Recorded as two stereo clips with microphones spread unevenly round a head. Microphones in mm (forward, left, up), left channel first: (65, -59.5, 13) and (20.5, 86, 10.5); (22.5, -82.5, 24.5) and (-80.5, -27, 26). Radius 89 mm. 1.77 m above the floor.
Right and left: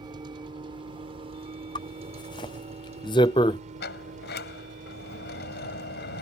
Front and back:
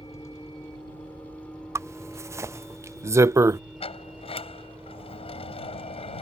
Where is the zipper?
140° right.